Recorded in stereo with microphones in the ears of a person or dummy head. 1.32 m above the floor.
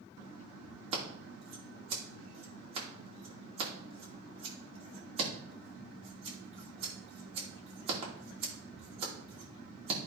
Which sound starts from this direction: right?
Scissors, at 0.9 s.